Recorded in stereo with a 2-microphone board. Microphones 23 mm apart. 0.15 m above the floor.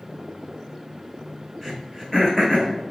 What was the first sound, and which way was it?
Throat clearing, 5° left (ahead or behind).